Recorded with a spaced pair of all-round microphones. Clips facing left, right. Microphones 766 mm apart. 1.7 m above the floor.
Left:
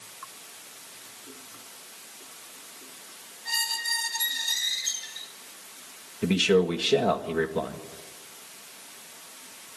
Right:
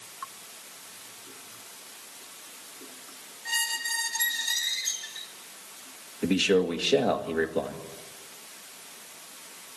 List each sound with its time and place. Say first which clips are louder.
3.5 s a squeak: left 1 dB; 20° right (ahead or behind), 5 m
6.2 s a man speaking: left 1 dB; 35° left (ahead or behind), 2.0 m